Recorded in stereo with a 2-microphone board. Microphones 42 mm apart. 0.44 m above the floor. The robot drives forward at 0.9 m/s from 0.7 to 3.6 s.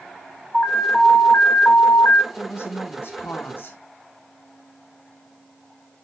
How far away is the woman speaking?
About 3 m.